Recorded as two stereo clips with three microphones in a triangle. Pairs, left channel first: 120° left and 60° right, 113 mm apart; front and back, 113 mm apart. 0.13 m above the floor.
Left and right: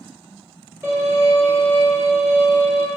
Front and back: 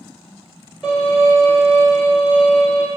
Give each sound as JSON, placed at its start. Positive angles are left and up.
{"t": 0.8, "sound": "a violin", "azimuth_deg": -90, "distance_m": 1.6}